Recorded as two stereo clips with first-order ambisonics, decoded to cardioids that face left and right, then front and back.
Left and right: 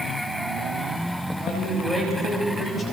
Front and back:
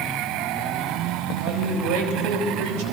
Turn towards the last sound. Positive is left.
turn(degrees=165)